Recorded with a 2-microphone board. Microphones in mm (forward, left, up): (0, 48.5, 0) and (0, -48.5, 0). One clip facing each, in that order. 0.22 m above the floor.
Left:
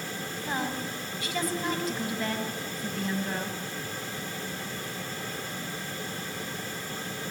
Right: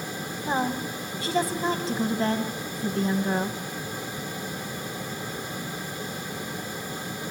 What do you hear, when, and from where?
0.5 s a woman speaking: 30° right (ahead or behind), 1.2 m